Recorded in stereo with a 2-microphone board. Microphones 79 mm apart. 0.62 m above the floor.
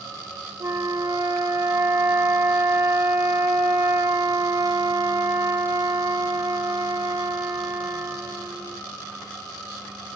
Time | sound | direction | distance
0.6 | a flute | 45° right (ahead or behind) | 1.6 m